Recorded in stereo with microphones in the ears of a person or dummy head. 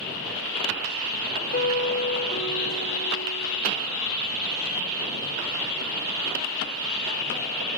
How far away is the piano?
About 0.9 m.